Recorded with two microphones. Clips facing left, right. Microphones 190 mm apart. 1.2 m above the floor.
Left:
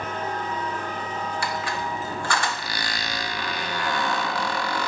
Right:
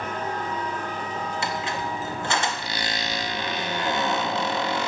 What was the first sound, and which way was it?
A squeak, 20° right (ahead or behind).